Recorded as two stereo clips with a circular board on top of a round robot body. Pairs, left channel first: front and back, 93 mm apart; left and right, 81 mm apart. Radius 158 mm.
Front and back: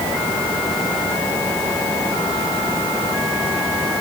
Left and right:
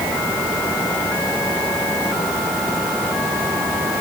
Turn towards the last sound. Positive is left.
No sound to turn to.